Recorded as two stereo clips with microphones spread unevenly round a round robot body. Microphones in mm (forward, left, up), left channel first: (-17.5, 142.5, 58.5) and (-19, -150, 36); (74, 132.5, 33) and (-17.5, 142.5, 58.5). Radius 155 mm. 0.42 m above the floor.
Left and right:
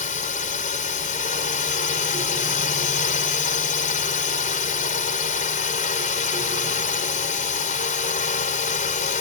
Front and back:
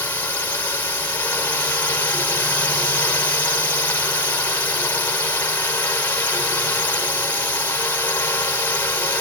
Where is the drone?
35° left.